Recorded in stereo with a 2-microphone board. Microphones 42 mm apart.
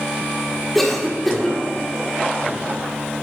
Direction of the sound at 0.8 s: 5° left (ahead or behind).